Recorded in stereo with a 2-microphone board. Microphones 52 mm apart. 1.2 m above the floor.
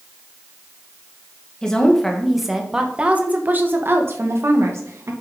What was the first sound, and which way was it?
A woman speaking, 15° left (ahead or behind).